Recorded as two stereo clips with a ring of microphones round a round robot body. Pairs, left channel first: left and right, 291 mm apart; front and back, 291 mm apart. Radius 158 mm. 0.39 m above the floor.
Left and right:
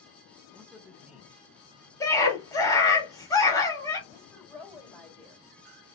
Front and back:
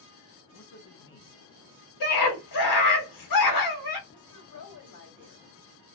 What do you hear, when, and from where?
0.5 s a man speaking: 5° right, 1.2 m
2.0 s a scream: 10° left, 1.9 m
4.1 s a woman speaking: 5° left, 2 m